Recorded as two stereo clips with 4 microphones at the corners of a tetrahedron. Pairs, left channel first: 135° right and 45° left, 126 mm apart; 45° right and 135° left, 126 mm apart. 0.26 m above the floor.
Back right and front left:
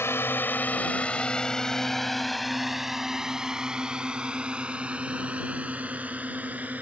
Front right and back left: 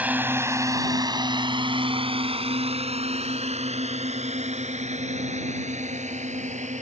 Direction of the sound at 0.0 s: 165° right.